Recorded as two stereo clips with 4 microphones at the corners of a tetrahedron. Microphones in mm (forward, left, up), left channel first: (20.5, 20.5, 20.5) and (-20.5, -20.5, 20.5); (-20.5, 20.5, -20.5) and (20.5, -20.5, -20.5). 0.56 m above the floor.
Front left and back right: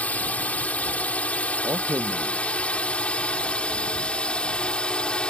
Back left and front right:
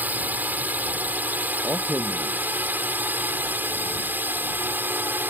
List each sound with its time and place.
0.0 s a drone: 5° right; by 5.3 s 20° right
1.6 s a man speaking: 100° right